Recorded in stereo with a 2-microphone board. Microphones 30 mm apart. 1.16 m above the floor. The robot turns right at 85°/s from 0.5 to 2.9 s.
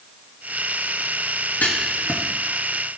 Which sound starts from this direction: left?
Writing, at 1.6 s.